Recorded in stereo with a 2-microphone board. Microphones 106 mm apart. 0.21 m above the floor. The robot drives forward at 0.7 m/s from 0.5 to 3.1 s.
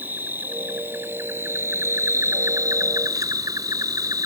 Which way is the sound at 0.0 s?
20° right (ahead or behind).